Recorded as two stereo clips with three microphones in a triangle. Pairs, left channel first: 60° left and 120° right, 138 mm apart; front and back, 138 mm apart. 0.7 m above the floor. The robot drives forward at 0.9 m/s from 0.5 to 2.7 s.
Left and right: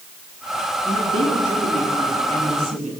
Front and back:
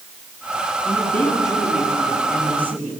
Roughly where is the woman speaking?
Right.